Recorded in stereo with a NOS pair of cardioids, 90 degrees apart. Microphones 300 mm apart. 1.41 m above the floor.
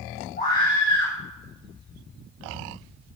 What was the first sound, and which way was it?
A scream, 35° left.